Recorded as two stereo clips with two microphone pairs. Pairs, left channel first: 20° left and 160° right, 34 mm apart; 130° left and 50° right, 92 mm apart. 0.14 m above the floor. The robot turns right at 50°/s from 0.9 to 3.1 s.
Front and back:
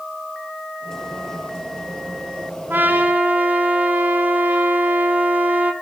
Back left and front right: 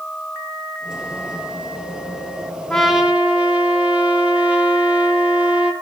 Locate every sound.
2.7 s a trumpet: 145° right, 2.5 m; by 5.7 s 125° right, 2.5 m